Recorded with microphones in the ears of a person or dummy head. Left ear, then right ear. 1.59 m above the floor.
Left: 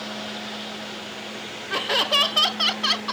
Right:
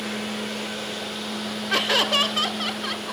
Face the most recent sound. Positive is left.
turn(degrees=40)  # may be behind; listen again after turning